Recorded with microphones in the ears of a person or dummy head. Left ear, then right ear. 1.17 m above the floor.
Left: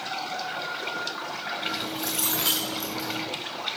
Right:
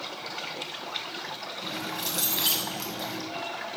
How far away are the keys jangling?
About 6 m.